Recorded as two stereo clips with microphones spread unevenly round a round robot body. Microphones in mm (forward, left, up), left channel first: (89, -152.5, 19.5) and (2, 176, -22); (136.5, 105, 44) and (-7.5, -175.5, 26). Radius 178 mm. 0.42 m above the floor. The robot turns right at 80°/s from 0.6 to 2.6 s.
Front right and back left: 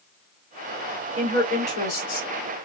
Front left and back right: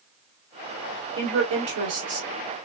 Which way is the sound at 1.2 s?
175° right.